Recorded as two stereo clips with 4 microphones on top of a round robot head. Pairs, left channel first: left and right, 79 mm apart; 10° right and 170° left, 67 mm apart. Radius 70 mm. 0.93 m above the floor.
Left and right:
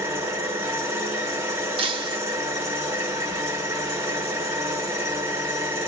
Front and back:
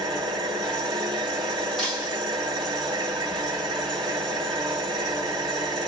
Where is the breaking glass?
100° right, 1.0 m.